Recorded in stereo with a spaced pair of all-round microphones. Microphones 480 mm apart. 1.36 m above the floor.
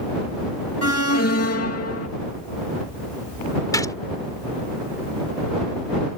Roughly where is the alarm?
Left.